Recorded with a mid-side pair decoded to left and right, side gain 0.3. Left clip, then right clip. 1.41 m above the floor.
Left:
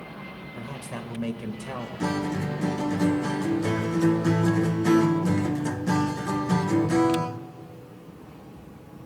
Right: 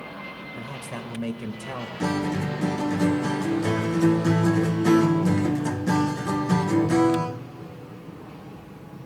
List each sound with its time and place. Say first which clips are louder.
0.6 s a man speaking: left 1 dB; 10° right, 1.5 m
2.0 s a guitar: right 2 dB; 15° right, 0.6 m